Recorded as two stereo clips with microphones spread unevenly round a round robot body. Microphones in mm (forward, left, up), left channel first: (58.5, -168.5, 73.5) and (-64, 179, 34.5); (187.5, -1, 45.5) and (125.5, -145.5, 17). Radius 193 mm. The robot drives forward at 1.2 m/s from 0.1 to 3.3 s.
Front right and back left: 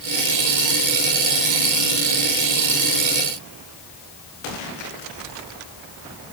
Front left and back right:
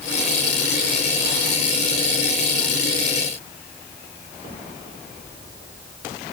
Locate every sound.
Only background noise.